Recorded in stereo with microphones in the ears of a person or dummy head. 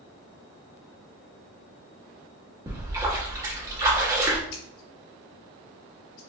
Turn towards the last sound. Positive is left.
turn(degrees=50)  # may be behind; listen again after turning